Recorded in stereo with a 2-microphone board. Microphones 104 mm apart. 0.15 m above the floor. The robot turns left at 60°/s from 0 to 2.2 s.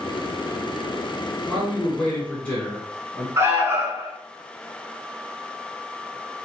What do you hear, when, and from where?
1.5 s a man speaking: 5° left (ahead or behind), 1.2 m; by 3.3 s 15° left (ahead or behind), 1.2 m
3.4 s an alarm: 25° right (ahead or behind), 1.0 m